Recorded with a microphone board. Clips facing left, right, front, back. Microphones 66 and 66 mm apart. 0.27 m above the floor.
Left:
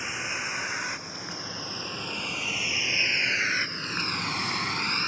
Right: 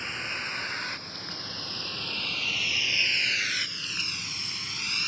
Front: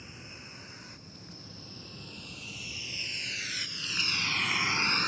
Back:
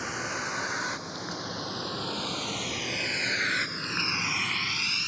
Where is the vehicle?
170° left; by 5.1 s 40° left.